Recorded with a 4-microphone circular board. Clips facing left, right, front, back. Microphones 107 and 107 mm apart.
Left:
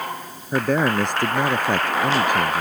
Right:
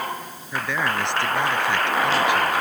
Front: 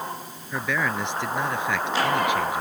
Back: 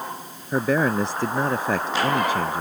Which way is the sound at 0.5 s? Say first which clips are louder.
Left 6 dB, back 6 dB; 130° left.